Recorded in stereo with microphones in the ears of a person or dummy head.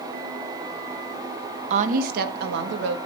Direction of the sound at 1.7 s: 40° right (ahead or behind).